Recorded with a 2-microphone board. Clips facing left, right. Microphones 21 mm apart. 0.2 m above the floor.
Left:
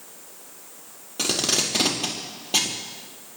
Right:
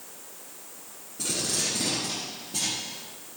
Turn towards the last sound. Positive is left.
turn(degrees=75)  # may be behind; listen again after turning